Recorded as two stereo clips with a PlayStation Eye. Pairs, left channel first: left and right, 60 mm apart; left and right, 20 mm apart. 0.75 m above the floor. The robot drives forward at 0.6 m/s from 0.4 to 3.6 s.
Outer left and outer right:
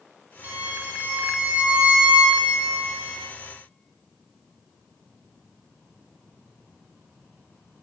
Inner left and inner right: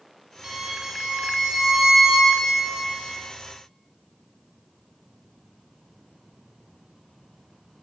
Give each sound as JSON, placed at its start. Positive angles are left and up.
{"t": 0.4, "sound": "a violin", "side_deg": -30, "distance_m": 1.5}